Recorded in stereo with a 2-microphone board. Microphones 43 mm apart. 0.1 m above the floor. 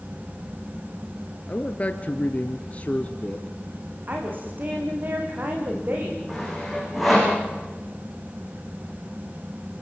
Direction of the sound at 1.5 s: 35° left (ahead or behind).